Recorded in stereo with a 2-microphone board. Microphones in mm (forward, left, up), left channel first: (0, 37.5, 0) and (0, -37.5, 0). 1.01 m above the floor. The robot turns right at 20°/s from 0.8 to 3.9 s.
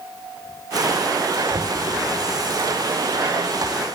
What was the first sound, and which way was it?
Knocking, 80° right.